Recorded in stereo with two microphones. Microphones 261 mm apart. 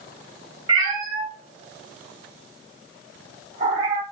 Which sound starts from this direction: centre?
A cat meowing, at 0.7 s.